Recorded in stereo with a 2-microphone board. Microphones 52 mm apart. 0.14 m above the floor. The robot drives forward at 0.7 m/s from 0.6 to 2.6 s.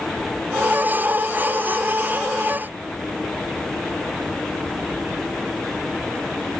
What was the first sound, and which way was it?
Only background noise.